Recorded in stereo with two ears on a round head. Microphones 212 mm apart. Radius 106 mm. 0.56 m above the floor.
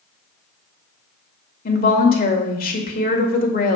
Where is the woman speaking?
40° left (ahead or behind), 1.5 m.